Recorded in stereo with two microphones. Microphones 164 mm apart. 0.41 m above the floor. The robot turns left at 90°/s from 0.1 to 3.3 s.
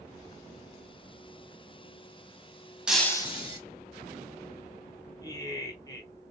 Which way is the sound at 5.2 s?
25° left (ahead or behind).